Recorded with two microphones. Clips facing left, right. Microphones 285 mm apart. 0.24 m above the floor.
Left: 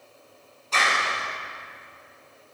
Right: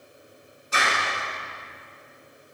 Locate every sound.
0.7 s a clap: 15° right (ahead or behind), 1.9 m